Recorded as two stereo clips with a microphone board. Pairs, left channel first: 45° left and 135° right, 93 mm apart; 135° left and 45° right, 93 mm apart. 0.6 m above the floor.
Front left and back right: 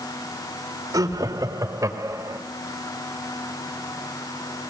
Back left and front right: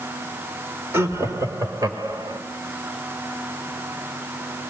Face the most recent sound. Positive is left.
turn(degrees=-85)